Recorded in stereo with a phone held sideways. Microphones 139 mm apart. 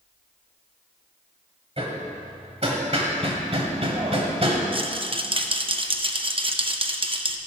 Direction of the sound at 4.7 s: 40° right (ahead or behind).